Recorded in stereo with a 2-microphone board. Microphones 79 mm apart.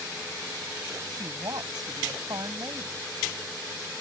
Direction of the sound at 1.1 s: 60° right (ahead or behind).